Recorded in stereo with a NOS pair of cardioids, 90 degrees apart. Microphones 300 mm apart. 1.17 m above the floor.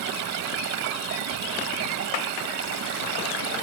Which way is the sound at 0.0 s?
60° right.